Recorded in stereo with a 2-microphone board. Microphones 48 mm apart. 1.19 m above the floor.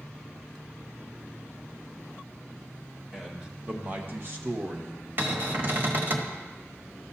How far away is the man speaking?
About 1.8 m.